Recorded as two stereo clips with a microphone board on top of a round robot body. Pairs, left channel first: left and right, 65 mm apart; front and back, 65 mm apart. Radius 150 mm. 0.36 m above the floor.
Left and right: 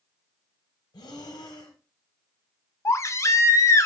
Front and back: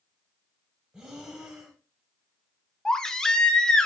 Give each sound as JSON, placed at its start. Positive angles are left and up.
{"t": 0.9, "sound": "breathing", "azimuth_deg": 100, "distance_m": 0.6}
{"t": 2.9, "sound": "a baby crying", "azimuth_deg": 75, "distance_m": 0.6}